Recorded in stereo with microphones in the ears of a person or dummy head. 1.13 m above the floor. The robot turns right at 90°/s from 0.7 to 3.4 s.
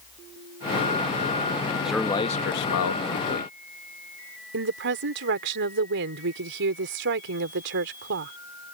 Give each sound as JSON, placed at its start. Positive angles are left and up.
{"t": 1.9, "sound": "a man speaking", "azimuth_deg": -5}
{"t": 4.5, "sound": "a woman speaking", "side_deg": -60}